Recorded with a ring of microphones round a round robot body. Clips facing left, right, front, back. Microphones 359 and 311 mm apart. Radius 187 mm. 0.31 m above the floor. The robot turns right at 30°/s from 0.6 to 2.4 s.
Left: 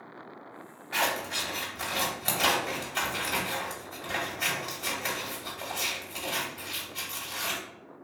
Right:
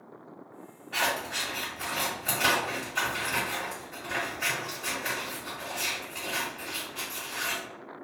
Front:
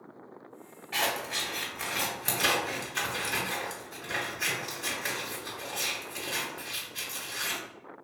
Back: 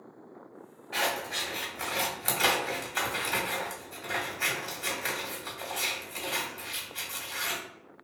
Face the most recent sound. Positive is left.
turn(degrees=95)